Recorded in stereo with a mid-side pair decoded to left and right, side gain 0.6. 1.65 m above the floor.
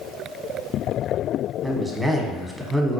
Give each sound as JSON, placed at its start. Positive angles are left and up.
{"t": 1.6, "sound": "a man speaking", "azimuth_deg": 0, "distance_m": 1.0}